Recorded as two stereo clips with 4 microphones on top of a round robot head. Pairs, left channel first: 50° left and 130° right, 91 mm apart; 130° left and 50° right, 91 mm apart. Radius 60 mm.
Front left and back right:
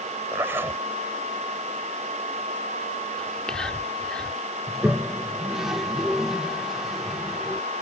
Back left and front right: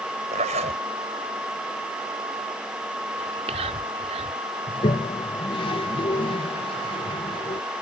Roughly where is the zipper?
Ahead right.